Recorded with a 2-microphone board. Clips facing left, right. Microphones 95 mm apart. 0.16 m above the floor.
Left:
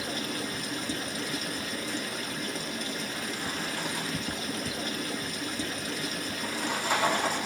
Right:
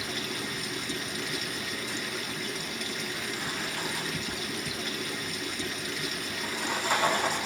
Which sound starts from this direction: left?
Running water, at 0.0 s.